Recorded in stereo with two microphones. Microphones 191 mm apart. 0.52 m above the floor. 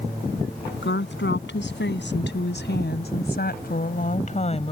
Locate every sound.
0.8 s a woman speaking: 80° left; by 4.7 s 30° left (ahead or behind)